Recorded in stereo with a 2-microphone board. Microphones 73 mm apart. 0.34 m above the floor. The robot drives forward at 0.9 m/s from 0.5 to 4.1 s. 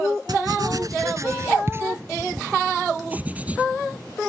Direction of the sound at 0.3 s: 65° right (ahead or behind).